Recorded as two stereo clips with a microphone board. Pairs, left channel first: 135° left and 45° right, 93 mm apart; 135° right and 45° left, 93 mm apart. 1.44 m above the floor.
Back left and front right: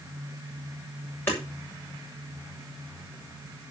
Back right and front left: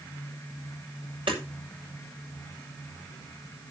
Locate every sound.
1.3 s hammering: 70° left, 7 m